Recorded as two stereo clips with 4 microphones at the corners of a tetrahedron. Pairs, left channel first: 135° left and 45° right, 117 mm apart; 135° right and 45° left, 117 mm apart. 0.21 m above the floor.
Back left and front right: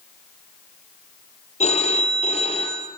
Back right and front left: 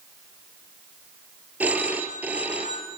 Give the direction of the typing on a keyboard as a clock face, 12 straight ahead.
No typing on a keyboard in this recording.